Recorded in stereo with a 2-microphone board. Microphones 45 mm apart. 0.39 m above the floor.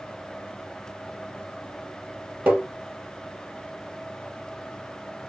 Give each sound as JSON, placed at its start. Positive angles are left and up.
{"t": 2.5, "sound": "tapping", "side_deg": -45, "distance_m": 2.0}